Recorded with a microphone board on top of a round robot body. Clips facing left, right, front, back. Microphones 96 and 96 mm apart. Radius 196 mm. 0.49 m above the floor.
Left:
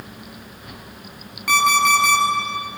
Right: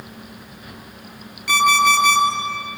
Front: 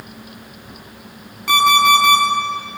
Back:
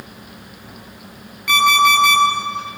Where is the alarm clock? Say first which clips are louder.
Right 1 dB, front 1 dB; 50° left, 8 m.